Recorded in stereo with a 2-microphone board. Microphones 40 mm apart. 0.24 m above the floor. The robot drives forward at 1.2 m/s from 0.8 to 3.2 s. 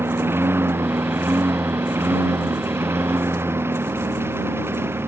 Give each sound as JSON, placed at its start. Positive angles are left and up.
{"t": 0.0, "sound": "a lawn mower", "side_deg": -75}